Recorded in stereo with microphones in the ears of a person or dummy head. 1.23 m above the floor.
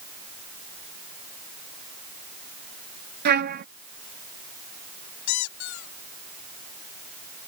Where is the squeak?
75° left (ahead or behind).